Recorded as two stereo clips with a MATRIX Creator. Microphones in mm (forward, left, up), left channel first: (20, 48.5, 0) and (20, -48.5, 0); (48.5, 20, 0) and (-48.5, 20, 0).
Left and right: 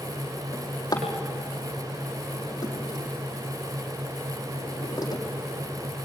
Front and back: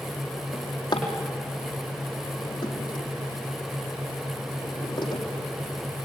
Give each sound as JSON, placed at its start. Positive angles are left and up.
{"t": 0.5, "sound": "a drawer", "azimuth_deg": 40, "distance_m": 4.5}